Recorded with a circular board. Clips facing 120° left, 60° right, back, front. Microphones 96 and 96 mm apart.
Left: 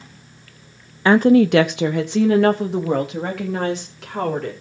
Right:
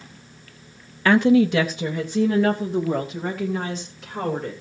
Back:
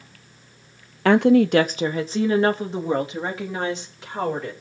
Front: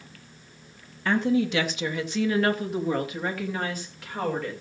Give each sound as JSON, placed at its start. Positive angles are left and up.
{"t": 1.1, "sound": "a woman speaking", "azimuth_deg": -175, "distance_m": 0.6}